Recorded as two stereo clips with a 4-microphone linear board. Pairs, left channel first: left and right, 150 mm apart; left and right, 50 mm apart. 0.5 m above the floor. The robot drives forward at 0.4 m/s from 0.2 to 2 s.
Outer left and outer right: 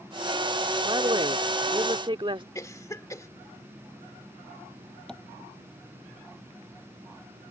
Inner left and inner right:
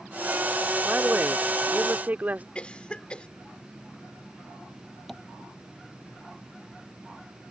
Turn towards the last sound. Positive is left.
turn(degrees=5)  # may be behind; listen again after turning